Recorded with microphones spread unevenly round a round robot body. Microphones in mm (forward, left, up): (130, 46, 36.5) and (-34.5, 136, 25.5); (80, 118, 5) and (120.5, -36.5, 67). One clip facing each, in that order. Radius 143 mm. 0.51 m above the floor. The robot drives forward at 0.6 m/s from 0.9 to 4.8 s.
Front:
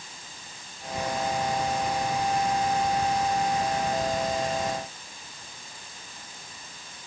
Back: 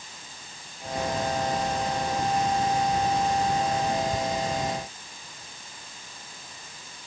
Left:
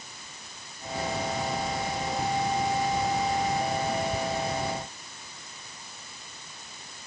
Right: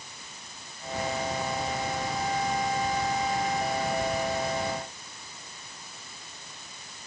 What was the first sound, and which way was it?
Only background noise.